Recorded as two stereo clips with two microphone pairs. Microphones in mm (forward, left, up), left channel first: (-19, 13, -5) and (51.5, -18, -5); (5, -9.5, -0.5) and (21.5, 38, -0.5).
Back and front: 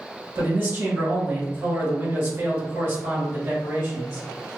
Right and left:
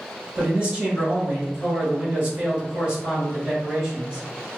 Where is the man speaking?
20° left, 1.4 m.